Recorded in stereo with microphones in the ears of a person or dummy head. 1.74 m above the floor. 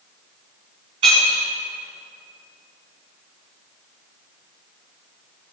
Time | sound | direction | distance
1.0 | breaking glass | 30° right (ahead or behind) | 3.5 m